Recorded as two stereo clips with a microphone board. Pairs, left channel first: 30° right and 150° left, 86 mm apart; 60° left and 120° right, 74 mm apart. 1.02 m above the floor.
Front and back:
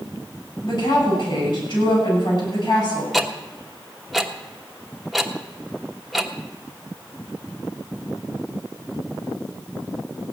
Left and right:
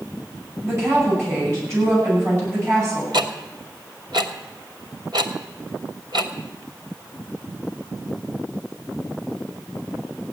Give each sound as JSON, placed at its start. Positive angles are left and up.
{"t": 0.6, "sound": "a woman speaking", "azimuth_deg": -65, "distance_m": 9.5}
{"t": 3.1, "sound": "ticking", "azimuth_deg": -120, "distance_m": 1.1}